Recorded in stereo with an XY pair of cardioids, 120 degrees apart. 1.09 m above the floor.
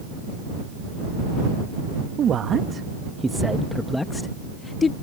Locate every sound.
2.2 s a man speaking: 50° right; by 4.9 s 40° left